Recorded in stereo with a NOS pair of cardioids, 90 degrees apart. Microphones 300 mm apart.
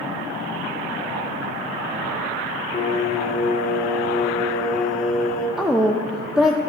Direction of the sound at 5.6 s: Straight ahead.